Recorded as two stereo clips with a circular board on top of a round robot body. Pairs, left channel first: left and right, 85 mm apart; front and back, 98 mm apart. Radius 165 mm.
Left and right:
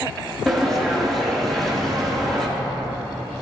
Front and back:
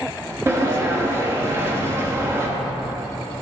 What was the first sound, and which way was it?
A sliding door, 175° left.